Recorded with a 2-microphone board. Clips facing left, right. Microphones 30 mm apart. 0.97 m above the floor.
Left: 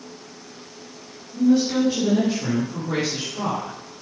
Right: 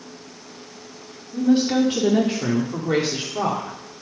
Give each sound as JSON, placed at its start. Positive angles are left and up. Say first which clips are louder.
{"t": 1.3, "sound": "a woman speaking", "louder": "even", "side_deg": -60, "distance_m": 2.0}